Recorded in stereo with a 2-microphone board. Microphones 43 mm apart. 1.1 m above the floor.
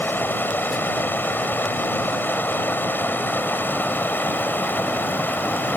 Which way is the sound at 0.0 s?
55° left (ahead or behind).